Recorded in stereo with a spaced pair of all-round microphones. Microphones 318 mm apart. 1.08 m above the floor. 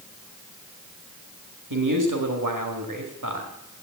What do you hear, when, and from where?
1.7 s a man speaking: 75° right (ahead or behind), 1.9 m